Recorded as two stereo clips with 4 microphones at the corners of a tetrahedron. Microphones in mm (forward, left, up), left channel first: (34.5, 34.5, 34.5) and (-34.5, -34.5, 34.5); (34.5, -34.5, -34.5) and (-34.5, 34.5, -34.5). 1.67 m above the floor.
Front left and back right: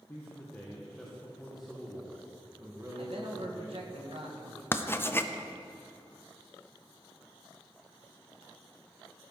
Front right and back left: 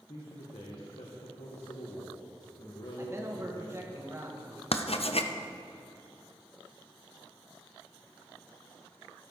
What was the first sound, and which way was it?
A man speaking, 20° right.